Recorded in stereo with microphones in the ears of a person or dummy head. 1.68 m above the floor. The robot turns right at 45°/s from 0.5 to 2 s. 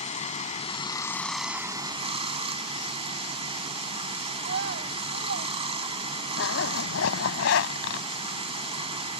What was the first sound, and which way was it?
Running water, 140° left.